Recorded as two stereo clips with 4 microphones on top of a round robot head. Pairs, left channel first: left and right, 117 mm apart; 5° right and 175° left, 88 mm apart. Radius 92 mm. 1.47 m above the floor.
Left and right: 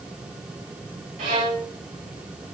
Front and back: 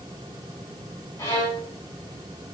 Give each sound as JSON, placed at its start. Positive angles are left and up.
{"t": 1.2, "sound": "a violin", "azimuth_deg": -70, "distance_m": 4.5}